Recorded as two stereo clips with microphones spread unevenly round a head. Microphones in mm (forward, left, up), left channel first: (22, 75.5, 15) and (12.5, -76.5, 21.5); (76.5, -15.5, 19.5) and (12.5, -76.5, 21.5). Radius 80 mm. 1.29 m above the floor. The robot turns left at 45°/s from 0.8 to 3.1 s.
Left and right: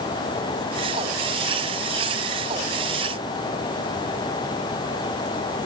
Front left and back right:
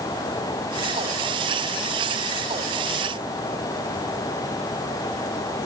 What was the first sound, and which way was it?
Only background noise.